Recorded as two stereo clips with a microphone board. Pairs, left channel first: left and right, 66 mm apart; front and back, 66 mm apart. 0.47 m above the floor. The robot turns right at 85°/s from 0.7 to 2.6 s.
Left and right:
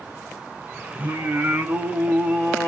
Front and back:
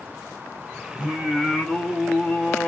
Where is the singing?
125° right, 1.1 m; by 2.7 s 15° left, 1.1 m.